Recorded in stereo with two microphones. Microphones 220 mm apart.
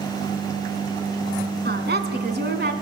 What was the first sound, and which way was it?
A woman speaking, 50° right (ahead or behind).